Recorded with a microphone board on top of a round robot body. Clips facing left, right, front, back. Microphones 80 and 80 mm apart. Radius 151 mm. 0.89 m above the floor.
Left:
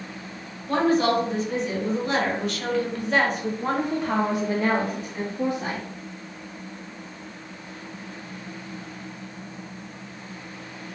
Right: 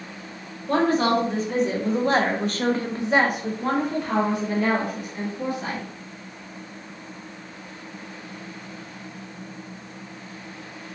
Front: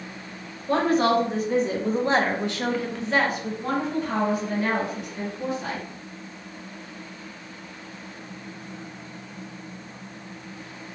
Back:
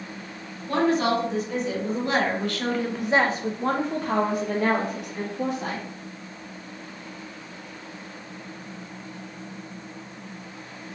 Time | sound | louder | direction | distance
0.7 | a woman speaking | even, front 1 dB | 40° right | 2.0 m